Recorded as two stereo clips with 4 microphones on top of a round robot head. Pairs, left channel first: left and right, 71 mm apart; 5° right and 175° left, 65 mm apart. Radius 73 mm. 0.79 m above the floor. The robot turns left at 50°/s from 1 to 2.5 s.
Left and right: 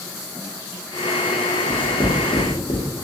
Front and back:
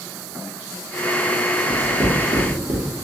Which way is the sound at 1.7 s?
170° left.